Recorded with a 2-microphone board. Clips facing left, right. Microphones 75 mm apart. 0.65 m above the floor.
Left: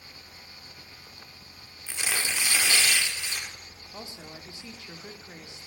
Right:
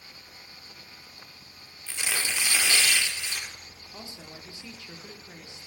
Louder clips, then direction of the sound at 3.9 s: Left 2 dB; 25° left (ahead or behind).